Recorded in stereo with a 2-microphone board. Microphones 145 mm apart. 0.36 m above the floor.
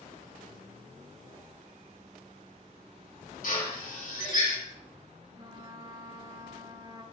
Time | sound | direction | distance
3.4 | a drill | 60° left (ahead or behind) | 6 m
5.4 | a trumpet | 30° right (ahead or behind) | 1.2 m